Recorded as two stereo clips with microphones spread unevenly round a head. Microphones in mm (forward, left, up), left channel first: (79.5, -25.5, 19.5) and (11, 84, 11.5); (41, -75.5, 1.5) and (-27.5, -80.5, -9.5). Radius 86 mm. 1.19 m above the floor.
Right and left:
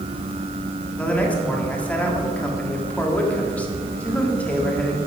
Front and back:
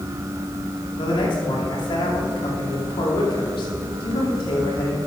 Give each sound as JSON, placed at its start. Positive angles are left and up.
{"t": 1.0, "sound": "a man speaking", "azimuth_deg": 20, "distance_m": 2.0}